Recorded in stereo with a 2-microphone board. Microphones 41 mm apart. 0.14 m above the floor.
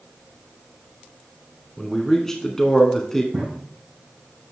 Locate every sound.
1.8 s a man speaking: 10° left (ahead or behind), 1.1 m
3.3 s a drawer: 55° right (ahead or behind), 3.5 m